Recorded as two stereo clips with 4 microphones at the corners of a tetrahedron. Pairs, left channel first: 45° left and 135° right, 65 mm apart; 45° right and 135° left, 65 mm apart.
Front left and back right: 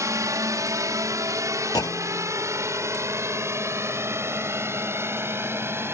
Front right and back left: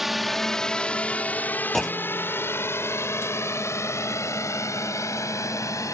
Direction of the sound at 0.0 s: 140° right.